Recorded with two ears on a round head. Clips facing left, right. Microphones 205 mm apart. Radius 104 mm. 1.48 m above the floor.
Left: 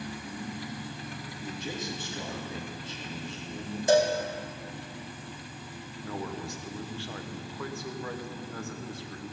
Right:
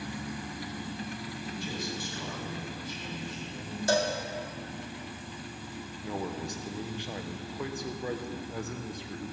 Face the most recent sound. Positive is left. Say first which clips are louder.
# right 1 dB
turn(degrees=-15)  # may be behind; listen again after turning